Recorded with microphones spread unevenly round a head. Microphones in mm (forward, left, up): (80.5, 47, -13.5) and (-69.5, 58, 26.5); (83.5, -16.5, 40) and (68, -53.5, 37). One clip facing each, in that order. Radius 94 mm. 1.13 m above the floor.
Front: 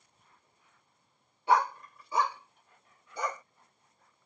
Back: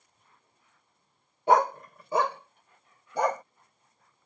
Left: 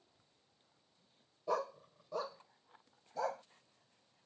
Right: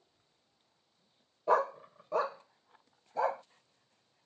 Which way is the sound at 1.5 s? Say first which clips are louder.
Back 5 dB, right 9 dB; 175° left.